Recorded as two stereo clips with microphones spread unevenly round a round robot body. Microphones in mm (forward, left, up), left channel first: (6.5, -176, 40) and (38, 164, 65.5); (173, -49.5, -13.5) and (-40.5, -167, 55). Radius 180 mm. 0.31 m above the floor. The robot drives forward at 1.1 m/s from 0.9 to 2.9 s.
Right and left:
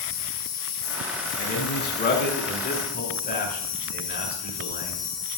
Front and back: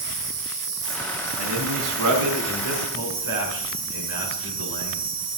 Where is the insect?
135° right, 3 m; by 5.4 s 160° right, 4.5 m.